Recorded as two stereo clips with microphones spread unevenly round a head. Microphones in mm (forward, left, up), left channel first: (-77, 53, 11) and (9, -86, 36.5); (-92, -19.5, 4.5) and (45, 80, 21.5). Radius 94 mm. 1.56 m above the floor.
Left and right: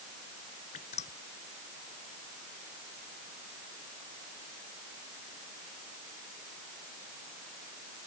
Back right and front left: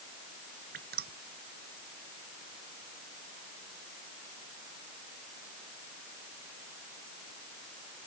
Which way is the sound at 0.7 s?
65° left.